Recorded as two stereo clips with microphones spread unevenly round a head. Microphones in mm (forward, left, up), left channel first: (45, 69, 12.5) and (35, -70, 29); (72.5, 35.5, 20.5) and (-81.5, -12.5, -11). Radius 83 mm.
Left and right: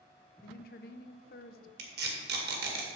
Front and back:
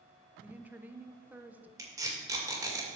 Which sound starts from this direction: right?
Tape being pulled, at 1.8 s.